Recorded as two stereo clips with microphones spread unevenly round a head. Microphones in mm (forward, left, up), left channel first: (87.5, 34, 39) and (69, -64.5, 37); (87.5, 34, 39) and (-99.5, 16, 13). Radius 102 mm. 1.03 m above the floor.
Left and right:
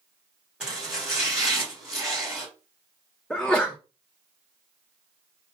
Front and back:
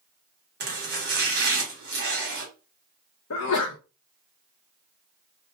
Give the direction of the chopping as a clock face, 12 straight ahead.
6 o'clock.